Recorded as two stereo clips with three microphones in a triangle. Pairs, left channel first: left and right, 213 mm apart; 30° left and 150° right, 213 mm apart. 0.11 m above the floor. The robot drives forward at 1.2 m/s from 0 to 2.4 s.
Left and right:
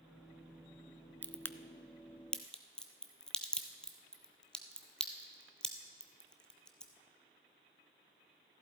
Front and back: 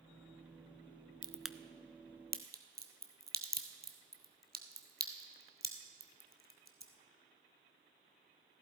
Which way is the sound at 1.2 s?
25° left.